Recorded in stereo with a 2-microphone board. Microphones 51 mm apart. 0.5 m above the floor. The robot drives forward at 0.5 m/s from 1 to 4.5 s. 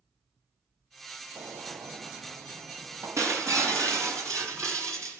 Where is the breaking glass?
80° right, 3.5 m.